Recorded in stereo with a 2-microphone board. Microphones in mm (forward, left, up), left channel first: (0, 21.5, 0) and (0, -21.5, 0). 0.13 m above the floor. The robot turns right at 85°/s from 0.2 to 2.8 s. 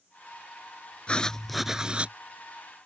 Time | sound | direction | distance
1.1 | writing | 140° left | ?